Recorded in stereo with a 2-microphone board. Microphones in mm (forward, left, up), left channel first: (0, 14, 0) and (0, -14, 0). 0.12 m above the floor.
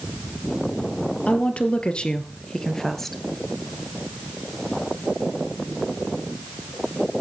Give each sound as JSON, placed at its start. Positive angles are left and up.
{"t": 1.3, "sound": "a woman speaking", "side_deg": 50, "distance_m": 2.5}